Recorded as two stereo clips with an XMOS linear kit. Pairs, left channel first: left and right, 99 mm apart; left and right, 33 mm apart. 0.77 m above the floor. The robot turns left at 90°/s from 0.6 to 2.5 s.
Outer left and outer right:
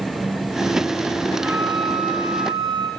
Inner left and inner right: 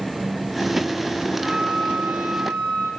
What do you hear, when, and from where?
1.3 s a flute: 20° right, 8.5 m; by 2.9 s 125° right, 8.5 m